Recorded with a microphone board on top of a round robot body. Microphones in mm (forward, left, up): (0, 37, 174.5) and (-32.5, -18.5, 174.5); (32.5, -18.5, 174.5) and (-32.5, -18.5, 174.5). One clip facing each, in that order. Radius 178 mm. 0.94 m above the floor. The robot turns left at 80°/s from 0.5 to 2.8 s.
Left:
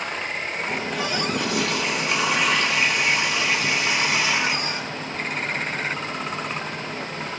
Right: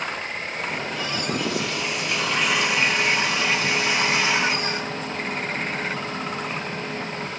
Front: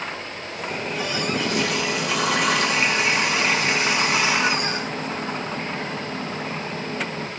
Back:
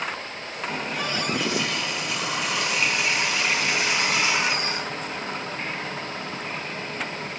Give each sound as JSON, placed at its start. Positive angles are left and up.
{"t": 0.7, "sound": "a running tap", "azimuth_deg": 110, "distance_m": 5.5}